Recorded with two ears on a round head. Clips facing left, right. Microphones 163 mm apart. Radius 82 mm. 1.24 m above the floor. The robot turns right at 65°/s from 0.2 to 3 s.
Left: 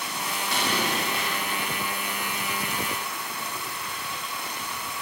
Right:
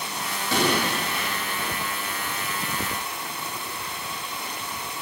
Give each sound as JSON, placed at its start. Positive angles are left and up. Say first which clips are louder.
{"t": 0.5, "sound": "an explosion", "louder": "right 6 dB", "side_deg": -65, "distance_m": 3.0}